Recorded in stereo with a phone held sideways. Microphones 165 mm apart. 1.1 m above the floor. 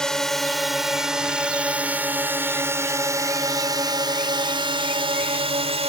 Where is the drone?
5° left (ahead or behind); by 5.9 s 40° right (ahead or behind).